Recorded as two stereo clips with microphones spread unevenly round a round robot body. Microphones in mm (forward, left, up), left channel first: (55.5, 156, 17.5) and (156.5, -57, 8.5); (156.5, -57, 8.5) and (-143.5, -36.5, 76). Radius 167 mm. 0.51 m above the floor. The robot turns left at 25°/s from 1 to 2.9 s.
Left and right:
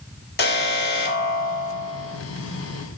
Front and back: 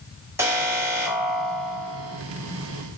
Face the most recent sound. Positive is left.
turn(degrees=40)